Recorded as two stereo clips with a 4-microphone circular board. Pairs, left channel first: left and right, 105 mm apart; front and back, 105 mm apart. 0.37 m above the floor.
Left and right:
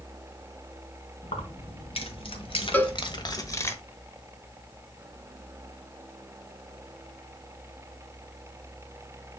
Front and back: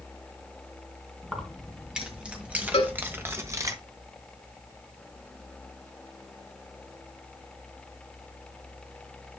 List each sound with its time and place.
1.2 s keys jangling: 95° left, 2.5 m; by 3.7 s 145° left, 1.1 m
2.7 s a cowbell: 20° left, 1.2 m